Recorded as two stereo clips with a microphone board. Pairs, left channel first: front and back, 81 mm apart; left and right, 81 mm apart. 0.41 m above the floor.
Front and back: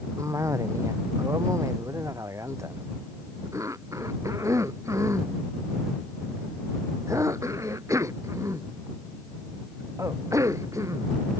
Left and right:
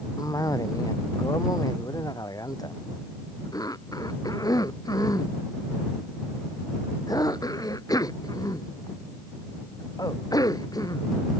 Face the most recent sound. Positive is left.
turn(degrees=130)